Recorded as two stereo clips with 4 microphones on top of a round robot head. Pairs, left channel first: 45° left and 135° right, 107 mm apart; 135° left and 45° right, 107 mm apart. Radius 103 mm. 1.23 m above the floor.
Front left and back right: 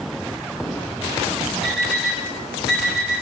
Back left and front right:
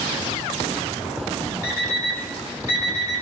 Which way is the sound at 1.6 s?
135° left.